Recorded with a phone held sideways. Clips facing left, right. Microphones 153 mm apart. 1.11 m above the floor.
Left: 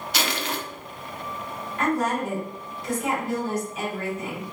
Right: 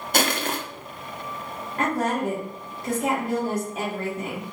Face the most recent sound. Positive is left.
turn(degrees=-55)  # may be behind; listen again after turning